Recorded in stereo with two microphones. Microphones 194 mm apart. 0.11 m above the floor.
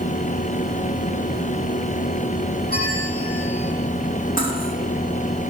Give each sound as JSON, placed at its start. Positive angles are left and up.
{"t": 2.7, "sound": "a bell", "side_deg": 55, "distance_m": 5.0}
{"t": 4.4, "sound": "cutlery clinking", "side_deg": 45, "distance_m": 3.5}